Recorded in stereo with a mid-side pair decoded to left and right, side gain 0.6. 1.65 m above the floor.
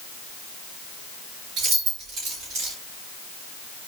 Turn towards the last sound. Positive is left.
turn(degrees=-60)